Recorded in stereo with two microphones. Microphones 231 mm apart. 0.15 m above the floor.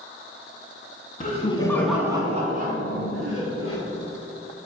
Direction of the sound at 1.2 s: 35° left (ahead or behind).